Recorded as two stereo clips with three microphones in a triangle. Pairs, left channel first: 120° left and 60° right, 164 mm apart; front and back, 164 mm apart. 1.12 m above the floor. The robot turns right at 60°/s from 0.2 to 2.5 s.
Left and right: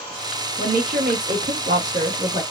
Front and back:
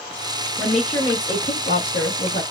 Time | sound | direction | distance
0.6 | a woman speaking | 100° right | 1.2 m